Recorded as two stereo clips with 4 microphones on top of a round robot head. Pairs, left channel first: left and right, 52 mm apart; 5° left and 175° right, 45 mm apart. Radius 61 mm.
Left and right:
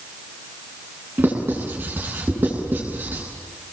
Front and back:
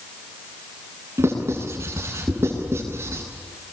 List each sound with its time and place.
1.2 s writing: 145° right, 9.5 m